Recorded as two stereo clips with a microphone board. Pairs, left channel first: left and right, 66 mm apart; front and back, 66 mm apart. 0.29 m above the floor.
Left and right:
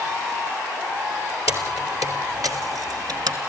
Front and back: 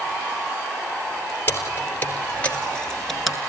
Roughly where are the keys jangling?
Ahead right.